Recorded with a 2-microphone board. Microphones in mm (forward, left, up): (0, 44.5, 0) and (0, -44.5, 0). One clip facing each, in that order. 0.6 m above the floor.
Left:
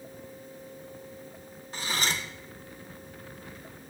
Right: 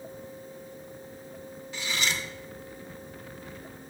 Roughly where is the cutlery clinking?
Left.